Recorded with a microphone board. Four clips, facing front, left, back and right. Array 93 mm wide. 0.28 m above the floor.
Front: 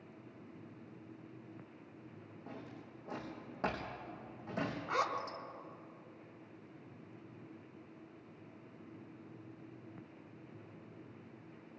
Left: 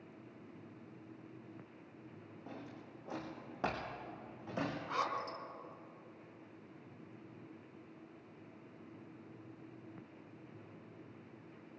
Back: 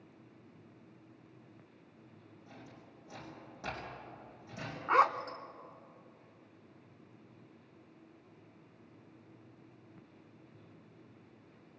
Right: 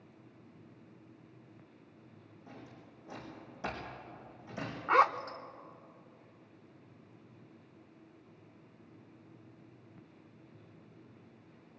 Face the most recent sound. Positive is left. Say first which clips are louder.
# right 15 dB, back 11 dB
turn(degrees=-130)